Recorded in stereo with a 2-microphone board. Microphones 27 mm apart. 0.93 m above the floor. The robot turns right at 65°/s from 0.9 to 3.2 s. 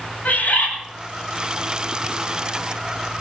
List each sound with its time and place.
0.2 s a bird: 80° left, 9 m